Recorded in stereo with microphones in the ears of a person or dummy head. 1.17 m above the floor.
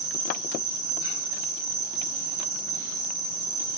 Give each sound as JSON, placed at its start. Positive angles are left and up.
{"t": 0.0, "sound": "an insect", "side_deg": -30, "distance_m": 2.5}